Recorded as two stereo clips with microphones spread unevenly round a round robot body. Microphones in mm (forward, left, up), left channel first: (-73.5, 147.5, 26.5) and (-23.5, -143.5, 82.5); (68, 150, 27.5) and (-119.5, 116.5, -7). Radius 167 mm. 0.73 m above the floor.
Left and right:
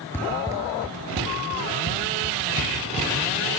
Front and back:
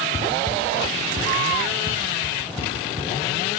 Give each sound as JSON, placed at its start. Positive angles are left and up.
{"t": 0.1, "sound": "running footsteps", "azimuth_deg": 0, "distance_m": 0.7}